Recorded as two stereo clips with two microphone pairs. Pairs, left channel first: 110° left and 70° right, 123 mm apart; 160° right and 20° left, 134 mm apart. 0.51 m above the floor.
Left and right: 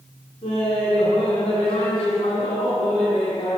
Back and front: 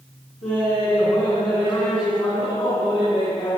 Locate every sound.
0.4 s laughter: 155° left, 4.5 m